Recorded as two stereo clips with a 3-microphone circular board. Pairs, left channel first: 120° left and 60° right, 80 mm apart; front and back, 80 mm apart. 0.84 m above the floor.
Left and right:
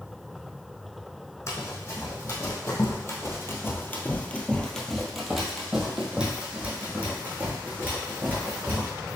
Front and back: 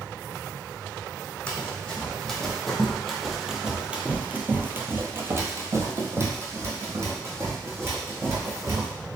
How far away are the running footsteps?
About 1.7 m.